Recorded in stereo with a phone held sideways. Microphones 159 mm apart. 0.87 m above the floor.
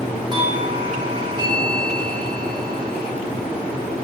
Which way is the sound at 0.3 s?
30° right (ahead or behind).